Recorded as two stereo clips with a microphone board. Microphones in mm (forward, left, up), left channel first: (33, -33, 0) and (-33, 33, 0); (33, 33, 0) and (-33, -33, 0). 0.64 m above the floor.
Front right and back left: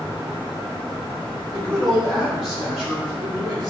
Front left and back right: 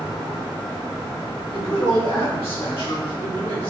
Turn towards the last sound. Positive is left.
turn(degrees=45)